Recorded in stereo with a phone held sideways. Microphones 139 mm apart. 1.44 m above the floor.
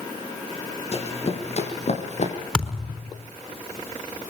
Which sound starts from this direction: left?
Running footsteps, at 0.9 s.